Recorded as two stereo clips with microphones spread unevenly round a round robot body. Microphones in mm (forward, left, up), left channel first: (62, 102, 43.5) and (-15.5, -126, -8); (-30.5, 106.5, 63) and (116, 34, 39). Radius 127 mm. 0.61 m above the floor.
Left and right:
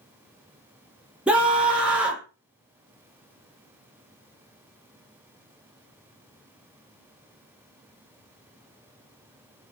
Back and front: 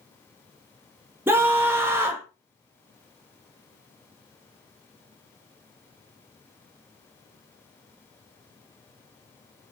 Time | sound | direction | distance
1.3 | a scream | 60° right | 0.5 m